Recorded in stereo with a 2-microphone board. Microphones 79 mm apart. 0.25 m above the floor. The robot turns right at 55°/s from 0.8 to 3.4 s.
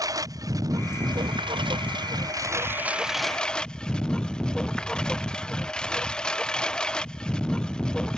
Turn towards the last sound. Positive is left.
turn(degrees=10)